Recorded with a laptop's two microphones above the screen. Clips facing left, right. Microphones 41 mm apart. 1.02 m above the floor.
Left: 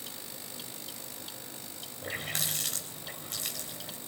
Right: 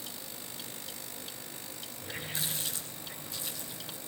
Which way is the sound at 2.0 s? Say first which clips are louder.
Left 3 dB; 70° left (ahead or behind).